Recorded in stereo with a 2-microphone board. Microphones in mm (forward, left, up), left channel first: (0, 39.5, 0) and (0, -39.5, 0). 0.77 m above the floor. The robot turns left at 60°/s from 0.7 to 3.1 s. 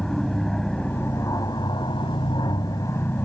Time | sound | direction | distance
0.0 | an aircraft | 170° left | ?